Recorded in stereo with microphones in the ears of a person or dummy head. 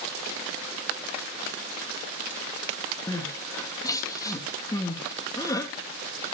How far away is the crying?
About 2.5 m.